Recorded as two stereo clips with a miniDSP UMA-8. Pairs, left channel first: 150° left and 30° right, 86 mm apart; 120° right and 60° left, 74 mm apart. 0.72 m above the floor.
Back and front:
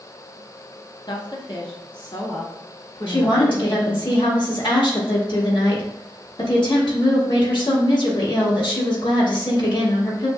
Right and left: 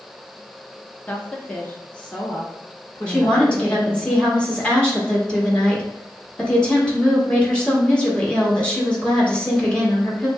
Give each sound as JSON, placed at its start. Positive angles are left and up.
{"t": 1.1, "sound": "a woman speaking", "azimuth_deg": 170, "distance_m": 0.9}
{"t": 3.1, "sound": "a woman speaking", "azimuth_deg": 165, "distance_m": 1.8}